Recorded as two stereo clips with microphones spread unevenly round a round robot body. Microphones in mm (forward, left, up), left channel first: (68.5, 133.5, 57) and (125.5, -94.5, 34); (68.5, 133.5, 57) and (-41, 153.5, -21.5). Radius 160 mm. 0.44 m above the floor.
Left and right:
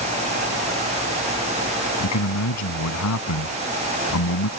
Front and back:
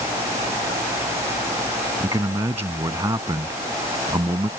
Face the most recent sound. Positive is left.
turn(degrees=110)